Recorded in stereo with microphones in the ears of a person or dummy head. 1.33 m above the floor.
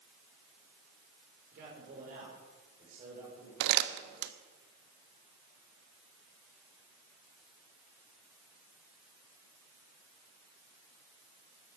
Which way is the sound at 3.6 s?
65° right (ahead or behind).